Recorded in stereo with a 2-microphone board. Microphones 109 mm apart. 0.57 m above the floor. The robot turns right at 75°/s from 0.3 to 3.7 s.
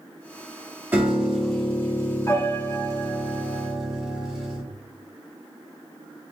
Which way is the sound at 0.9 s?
35° right.